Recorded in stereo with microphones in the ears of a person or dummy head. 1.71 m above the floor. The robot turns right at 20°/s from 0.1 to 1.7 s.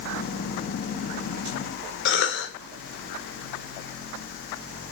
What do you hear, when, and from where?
2.0 s a cough: 70° left (ahead or behind), 1.7 m